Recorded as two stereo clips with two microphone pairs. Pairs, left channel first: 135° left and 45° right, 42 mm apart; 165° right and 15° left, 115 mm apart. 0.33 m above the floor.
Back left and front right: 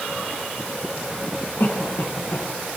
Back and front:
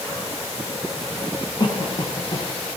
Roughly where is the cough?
Behind left.